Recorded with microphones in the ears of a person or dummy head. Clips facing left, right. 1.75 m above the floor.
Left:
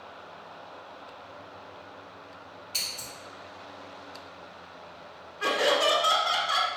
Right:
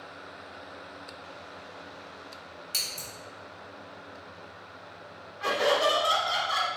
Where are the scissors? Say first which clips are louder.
Right 1 dB; 25° right (ahead or behind), 1.0 m.